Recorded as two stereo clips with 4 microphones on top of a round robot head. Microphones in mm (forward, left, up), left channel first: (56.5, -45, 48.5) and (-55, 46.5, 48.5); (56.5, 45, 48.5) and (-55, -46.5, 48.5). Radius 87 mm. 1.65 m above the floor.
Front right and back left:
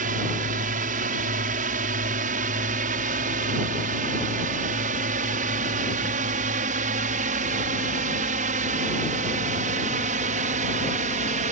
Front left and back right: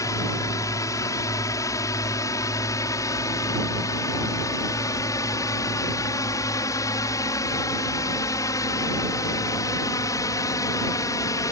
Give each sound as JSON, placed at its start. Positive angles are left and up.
{"t": 0.0, "sound": "a drone", "azimuth_deg": 110}